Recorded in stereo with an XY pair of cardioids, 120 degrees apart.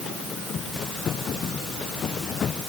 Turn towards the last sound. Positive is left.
No sound to turn to.